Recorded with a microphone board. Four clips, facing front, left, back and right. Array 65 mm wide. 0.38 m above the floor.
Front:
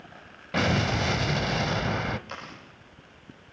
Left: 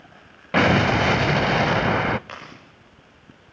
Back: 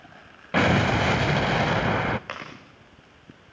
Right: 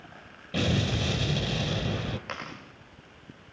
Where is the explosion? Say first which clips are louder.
Left 11 dB, back 5 dB; 115° left, 0.5 m.